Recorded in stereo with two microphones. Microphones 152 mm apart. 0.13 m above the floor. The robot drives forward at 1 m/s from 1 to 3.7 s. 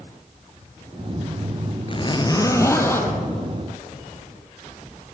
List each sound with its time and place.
1.9 s a zipper: 40° left (ahead or behind), 0.8 m; by 3.2 s 15° left (ahead or behind), 1.9 m